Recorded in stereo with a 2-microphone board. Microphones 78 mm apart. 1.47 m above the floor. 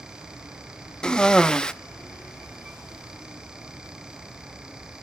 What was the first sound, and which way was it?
A cough, 10° left (ahead or behind).